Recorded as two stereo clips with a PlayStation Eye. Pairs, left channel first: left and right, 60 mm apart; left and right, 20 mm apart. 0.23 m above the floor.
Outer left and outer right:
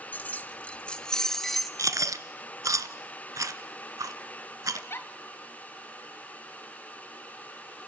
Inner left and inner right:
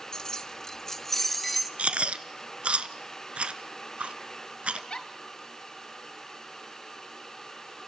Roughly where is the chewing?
Right.